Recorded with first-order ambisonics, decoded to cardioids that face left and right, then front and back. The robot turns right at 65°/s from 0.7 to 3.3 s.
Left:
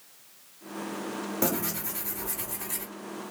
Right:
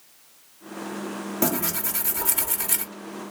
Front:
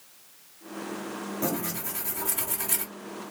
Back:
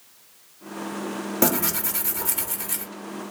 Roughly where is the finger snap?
No finger snap in this recording.